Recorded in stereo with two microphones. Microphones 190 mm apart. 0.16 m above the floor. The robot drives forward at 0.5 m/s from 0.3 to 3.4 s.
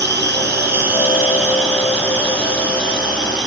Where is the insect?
70° right (ahead or behind), 0.8 m; by 3.5 s 25° right (ahead or behind), 1.9 m.